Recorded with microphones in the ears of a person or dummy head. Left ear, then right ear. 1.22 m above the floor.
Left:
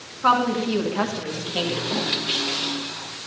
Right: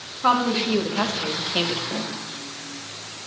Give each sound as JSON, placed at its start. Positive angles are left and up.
{"t": 0.2, "sound": "a woman speaking", "side_deg": 5, "distance_m": 2.5}
{"t": 1.9, "sound": "a snare drum", "side_deg": -10, "distance_m": 5.0}